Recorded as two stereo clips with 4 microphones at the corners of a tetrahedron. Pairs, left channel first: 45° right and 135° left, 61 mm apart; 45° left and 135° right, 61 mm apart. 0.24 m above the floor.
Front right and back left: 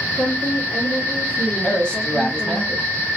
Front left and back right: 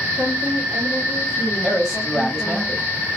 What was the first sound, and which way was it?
A woman speaking, 140° right.